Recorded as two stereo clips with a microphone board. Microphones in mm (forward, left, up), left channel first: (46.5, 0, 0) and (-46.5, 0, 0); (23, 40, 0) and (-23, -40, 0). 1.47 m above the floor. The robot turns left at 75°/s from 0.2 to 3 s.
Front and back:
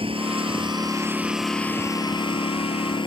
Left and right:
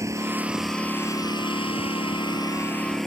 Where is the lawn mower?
175° right; by 3.1 s 25° right.